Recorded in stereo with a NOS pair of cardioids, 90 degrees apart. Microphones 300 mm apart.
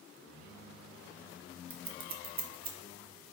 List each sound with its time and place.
1.7 s scissors: 35° right, 0.8 m